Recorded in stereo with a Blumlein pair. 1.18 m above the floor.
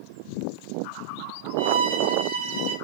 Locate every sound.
1.6 s a violin: 70° right, 0.8 m